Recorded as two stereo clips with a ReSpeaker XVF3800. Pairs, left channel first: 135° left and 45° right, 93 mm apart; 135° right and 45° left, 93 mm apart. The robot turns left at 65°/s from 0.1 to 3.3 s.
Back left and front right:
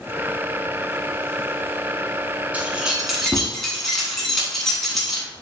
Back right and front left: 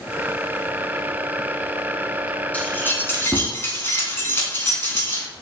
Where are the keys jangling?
90° right, 0.9 m; by 5.3 s 140° right, 0.9 m.